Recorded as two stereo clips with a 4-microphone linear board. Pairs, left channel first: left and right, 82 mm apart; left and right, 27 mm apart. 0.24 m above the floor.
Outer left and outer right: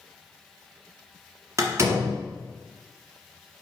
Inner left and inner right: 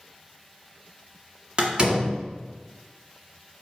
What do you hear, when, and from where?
1.6 s a door slam: 35° right (ahead or behind), 1.7 m